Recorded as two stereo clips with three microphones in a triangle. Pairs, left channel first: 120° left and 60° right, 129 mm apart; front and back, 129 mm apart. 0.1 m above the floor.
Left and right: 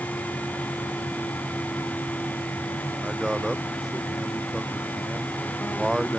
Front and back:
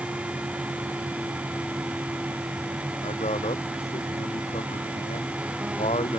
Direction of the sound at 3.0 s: 25° left.